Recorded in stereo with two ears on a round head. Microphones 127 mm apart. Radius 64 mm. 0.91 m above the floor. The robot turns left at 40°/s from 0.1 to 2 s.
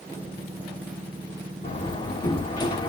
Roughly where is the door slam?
Left.